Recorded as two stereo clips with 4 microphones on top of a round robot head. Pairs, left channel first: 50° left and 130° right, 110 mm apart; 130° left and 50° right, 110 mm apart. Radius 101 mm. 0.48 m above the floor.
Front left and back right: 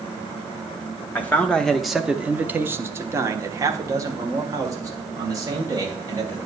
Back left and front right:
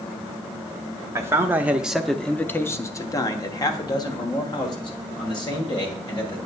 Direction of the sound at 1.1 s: 10° right.